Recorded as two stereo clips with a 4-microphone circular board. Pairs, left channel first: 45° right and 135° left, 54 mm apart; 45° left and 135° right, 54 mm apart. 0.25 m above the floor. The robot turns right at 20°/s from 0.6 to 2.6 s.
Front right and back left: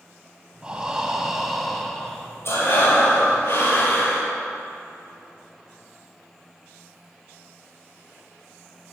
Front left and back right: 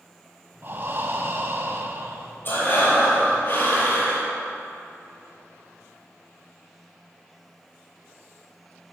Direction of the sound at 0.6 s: 160° right.